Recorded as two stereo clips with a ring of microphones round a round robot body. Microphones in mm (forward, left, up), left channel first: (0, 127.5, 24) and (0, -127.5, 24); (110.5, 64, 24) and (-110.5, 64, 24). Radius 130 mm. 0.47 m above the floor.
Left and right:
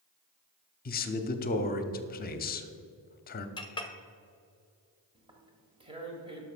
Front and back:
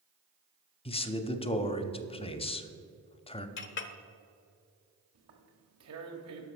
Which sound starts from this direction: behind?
Tearing paper, at 5.2 s.